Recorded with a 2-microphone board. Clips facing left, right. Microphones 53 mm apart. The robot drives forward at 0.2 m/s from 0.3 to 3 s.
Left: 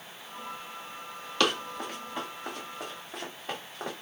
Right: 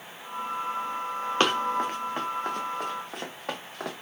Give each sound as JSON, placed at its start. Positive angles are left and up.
{"t": 1.4, "sound": "running footsteps", "side_deg": -35, "distance_m": 1.1}